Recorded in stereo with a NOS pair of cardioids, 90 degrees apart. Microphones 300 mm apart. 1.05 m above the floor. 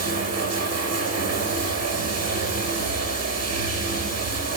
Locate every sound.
0.0 s running water: 55° right, 6.5 m